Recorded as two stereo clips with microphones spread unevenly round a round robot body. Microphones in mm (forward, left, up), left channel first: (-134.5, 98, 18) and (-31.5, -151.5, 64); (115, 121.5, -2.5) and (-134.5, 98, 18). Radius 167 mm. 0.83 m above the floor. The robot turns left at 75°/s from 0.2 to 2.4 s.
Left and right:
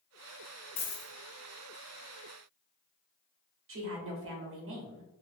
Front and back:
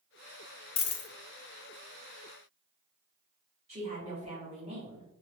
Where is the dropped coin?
50° left, 0.5 m; by 1.1 s 25° left, 0.5 m.